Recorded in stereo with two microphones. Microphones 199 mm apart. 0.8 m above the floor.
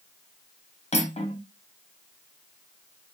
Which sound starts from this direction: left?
Cutlery clinking, at 0.9 s.